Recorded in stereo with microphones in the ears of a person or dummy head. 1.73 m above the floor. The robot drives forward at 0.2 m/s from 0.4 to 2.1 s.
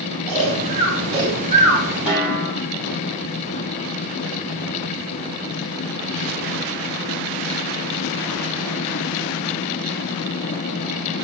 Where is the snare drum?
5° right (ahead or behind), 1.0 m.